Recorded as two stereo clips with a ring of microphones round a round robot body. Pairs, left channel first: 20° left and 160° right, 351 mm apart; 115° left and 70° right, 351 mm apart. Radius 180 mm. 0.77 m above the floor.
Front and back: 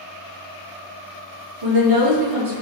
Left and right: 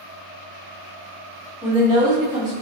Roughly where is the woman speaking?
Behind right.